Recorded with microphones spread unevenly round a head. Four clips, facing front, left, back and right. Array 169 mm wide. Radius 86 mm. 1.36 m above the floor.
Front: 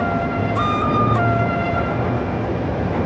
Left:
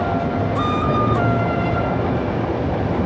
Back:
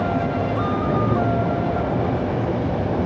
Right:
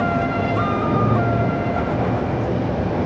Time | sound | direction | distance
0.0 | an insect | 95° left | 3 m